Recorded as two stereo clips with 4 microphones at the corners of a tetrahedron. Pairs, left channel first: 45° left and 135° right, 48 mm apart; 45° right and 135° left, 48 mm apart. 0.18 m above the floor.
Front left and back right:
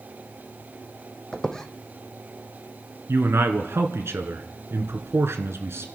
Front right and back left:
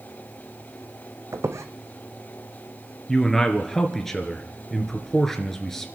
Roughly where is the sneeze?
No sneeze in this recording.